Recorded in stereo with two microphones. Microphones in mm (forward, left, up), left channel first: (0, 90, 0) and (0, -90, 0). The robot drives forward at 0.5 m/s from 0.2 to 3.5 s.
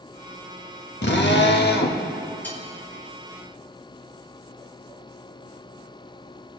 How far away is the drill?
About 0.7 m.